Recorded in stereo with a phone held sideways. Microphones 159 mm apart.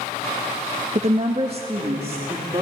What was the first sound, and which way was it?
A woman speaking, 45° right (ahead or behind).